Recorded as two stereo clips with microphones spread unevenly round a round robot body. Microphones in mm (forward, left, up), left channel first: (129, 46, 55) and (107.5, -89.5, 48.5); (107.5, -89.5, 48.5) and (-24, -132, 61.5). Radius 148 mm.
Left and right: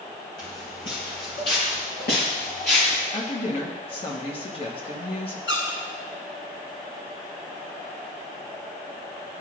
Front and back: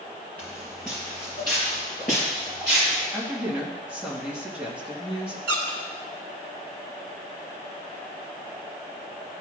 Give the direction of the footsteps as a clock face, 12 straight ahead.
8 o'clock.